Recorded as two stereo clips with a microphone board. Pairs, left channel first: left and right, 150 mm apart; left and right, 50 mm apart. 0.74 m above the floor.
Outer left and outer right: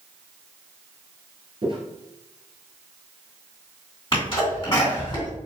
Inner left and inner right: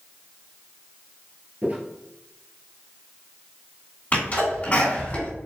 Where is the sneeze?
30° left (ahead or behind), 2 m.